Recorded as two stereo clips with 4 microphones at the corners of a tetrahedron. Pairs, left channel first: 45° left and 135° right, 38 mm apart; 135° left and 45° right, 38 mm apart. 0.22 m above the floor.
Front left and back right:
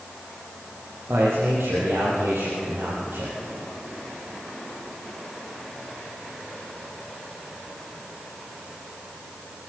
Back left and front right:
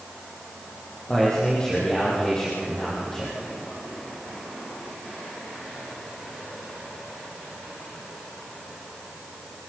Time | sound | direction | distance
1.1 | a man speaking | 150° right | 6.5 m